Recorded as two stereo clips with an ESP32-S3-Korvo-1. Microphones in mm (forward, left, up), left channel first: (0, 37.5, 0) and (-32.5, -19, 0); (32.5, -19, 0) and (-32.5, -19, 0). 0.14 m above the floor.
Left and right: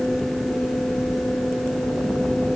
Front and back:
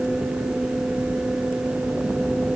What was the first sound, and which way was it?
Only background noise.